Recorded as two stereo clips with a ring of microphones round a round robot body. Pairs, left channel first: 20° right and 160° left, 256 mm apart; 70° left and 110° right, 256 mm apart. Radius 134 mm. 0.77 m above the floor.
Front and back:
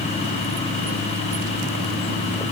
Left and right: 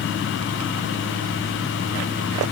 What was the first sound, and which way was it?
Only background noise.